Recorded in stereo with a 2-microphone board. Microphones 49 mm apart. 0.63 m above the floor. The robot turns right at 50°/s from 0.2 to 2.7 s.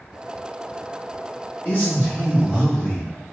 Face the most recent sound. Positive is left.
turn(degrees=145)